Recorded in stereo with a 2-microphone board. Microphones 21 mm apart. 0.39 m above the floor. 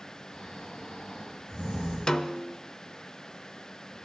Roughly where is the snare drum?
Left.